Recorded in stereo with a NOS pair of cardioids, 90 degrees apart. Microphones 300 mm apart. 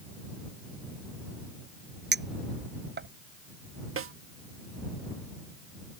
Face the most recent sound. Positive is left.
turn(degrees=-45)